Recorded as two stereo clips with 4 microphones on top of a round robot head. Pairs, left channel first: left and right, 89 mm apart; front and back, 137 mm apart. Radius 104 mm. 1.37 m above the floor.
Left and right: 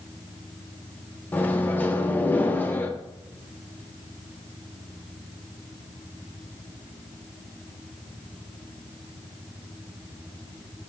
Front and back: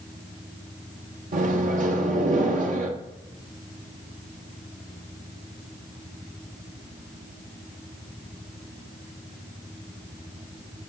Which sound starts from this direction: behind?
A microwave, at 1.3 s.